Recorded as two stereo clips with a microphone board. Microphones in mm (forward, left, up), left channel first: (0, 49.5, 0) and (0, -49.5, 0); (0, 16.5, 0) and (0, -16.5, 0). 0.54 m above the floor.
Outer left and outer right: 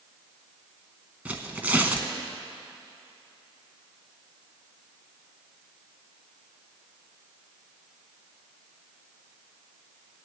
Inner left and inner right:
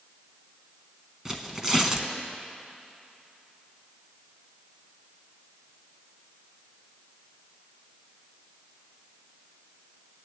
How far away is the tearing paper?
About 0.9 m.